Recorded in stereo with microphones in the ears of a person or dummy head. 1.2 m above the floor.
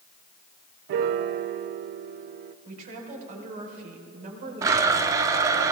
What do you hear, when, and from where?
0.9 s a piano: 45° right (ahead or behind), 0.5 m
2.6 s a woman speaking: 45° right (ahead or behind), 4 m
4.6 s a blender: 20° right (ahead or behind), 0.8 m